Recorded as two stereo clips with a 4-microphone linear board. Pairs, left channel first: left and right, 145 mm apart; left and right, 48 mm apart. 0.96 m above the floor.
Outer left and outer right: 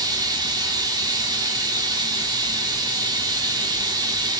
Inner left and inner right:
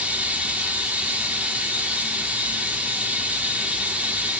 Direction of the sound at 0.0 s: 25° right (ahead or behind).